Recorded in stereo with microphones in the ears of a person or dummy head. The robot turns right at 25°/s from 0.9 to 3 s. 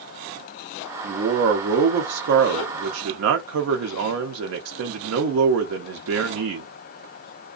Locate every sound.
1.0 s a man speaking: 145° right, 0.5 m; by 6.7 s 100° right, 0.5 m